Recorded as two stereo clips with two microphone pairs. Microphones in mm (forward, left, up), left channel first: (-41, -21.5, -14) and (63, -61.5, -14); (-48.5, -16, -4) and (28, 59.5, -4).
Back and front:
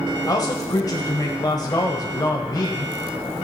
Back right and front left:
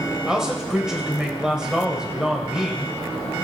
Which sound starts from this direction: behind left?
A man speaking, at 0.3 s.